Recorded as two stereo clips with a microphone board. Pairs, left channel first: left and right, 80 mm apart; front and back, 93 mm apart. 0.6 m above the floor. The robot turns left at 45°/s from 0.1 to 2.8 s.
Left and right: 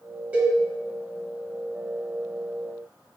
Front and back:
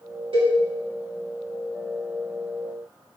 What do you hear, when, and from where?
0.3 s a cowbell: 160° right, 1.0 m; by 0.6 s 170° right, 1.0 m